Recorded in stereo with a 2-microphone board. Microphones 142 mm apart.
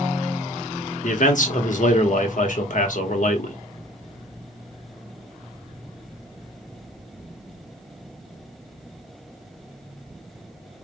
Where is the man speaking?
65° left (ahead or behind), 1.0 m.